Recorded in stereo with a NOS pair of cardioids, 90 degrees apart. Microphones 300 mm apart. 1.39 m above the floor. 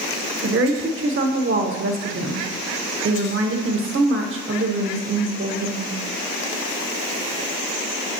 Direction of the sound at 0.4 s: 45° right.